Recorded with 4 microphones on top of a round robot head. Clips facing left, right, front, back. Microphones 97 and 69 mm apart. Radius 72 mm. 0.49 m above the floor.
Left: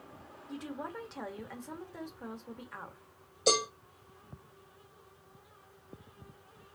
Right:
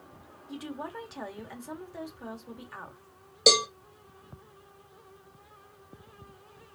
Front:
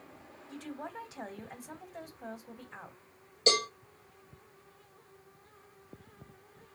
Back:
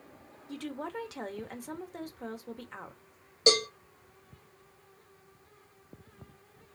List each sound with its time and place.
0.5 s a woman speaking: 175° right, 1.3 m
3.5 s a cowbell: 110° right, 3 m